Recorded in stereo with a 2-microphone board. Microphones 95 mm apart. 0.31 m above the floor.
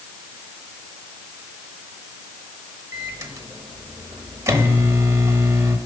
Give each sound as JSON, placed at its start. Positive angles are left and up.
{"t": 2.9, "sound": "a microwave", "side_deg": -35, "distance_m": 0.9}